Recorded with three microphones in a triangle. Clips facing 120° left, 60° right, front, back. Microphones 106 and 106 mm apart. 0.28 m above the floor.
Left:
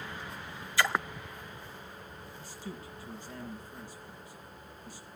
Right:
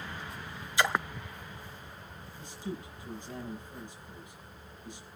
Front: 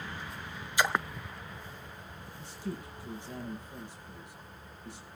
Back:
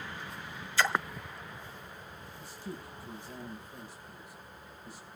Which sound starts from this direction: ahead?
A man speaking, at 2.4 s.